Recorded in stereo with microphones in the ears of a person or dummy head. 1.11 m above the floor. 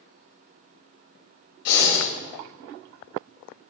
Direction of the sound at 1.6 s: 60° left (ahead or behind).